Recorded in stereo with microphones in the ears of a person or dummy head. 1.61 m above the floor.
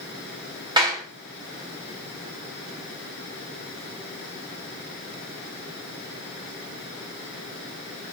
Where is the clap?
20° right (ahead or behind), 3.5 m.